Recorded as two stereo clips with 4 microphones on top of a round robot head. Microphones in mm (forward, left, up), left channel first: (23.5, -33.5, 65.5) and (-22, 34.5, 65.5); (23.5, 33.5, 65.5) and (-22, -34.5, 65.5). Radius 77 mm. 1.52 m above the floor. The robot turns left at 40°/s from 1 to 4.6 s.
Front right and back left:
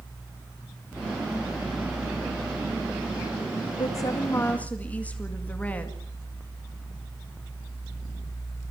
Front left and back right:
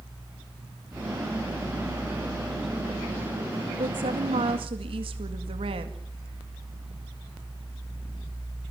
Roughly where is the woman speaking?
Right.